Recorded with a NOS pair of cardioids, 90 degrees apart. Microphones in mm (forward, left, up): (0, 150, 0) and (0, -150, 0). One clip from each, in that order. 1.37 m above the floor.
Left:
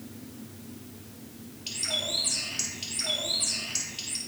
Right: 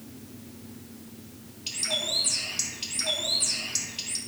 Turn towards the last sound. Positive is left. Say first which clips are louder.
# right 1 dB
turn(degrees=-15)